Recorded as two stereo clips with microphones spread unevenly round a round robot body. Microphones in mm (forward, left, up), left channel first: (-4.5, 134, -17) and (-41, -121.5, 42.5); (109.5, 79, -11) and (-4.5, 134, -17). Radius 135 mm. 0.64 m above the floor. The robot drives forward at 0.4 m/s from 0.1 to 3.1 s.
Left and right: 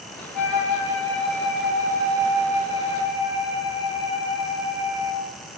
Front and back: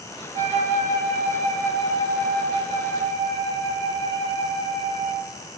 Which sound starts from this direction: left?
A flute, at 0.3 s.